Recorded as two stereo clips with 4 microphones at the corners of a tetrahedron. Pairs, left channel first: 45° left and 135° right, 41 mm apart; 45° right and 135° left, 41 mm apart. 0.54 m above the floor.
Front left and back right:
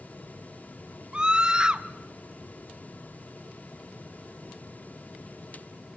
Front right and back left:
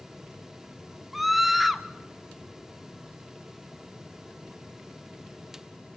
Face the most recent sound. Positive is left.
turn(degrees=-145)